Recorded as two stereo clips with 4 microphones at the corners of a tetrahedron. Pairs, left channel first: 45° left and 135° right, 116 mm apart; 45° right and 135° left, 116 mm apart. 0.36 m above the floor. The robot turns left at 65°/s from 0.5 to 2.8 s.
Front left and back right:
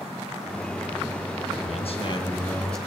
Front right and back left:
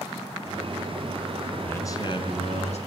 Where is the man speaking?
30° left, 4 m; by 2.8 s 45° right, 4 m.